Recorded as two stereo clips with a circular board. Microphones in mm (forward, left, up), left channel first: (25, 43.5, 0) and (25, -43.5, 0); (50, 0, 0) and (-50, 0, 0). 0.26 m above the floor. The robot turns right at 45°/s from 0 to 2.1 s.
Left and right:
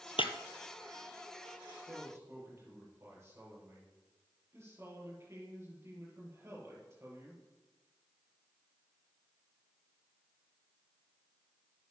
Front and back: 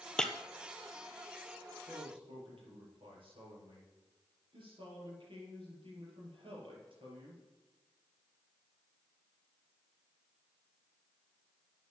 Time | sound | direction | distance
0.2 | breaking glass | 80° left | 1.1 m
1.9 | a man speaking | 160° right | 6 m